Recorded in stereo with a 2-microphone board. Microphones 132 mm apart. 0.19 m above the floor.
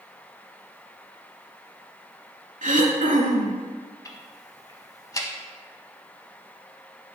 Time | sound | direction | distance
2.6 | throat clearing | 70° right (ahead or behind) | 0.6 m
4.0 | ticking | 25° left (ahead or behind) | 0.5 m